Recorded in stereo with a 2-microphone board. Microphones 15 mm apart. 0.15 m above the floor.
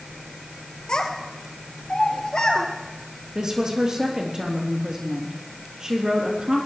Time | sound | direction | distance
0.9 | a child speaking | 60° left (ahead or behind) | 3 m
3.4 | a woman speaking | 40° right (ahead or behind) | 3.5 m